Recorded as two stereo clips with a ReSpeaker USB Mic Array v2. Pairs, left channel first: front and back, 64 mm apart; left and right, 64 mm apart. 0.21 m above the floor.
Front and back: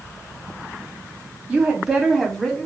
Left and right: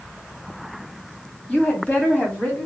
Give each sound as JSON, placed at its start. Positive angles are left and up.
{"t": 1.5, "sound": "a woman speaking", "azimuth_deg": 130, "distance_m": 1.3}